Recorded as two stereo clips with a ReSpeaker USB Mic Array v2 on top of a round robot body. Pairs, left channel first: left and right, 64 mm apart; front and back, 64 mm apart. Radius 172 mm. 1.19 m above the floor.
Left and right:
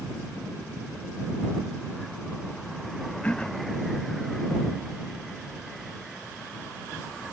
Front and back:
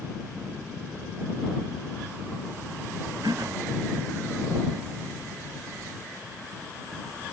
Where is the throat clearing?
160° left.